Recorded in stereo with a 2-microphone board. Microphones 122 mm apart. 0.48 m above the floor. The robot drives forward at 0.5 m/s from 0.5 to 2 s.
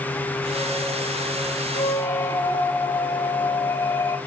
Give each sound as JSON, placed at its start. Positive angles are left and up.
{"t": 1.8, "sound": "a squeak", "side_deg": 25, "distance_m": 1.3}